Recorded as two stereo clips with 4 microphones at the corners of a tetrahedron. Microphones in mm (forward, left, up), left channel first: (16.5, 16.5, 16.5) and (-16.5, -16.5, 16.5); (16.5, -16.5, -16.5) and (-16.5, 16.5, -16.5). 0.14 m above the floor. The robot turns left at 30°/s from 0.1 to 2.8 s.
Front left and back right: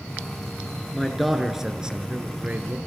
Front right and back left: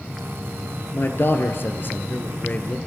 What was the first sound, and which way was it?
A man speaking, 35° right.